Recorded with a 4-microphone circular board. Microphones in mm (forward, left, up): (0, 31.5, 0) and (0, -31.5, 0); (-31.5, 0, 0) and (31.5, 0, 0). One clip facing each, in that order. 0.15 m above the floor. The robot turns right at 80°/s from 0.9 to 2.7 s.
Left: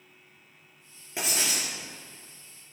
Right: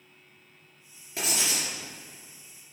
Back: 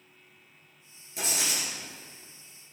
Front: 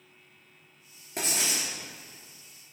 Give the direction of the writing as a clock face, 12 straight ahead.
11 o'clock.